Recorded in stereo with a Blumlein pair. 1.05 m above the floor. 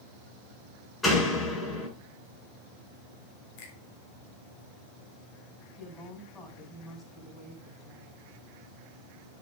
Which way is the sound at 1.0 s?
15° left.